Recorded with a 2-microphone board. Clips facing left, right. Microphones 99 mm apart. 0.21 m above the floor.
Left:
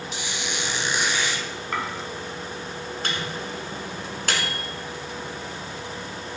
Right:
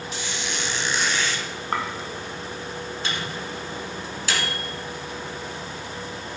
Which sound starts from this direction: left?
A microwave, at 3.0 s.